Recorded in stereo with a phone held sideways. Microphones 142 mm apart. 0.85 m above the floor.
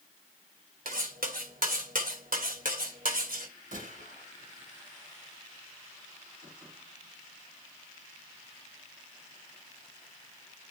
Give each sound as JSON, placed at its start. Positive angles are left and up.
{"t": 0.8, "sound": "cutlery clinking", "side_deg": -80, "distance_m": 2.0}
{"t": 3.7, "sound": "a gunshot", "side_deg": -75, "distance_m": 7.0}